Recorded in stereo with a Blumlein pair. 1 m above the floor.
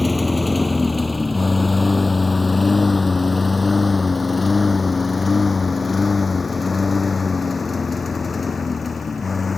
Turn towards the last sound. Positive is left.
turn(degrees=15)